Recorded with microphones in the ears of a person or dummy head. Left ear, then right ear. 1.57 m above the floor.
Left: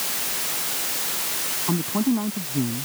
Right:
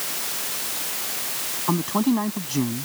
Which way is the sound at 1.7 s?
80° right.